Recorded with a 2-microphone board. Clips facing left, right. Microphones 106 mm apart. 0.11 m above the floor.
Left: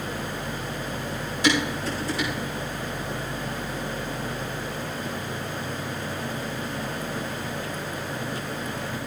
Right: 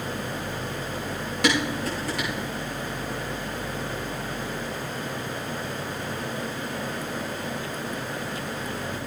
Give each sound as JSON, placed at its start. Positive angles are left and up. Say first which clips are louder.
{"t": 1.4, "sound": "dishes clattering", "louder": "left 1 dB", "side_deg": -65, "distance_m": 6.5}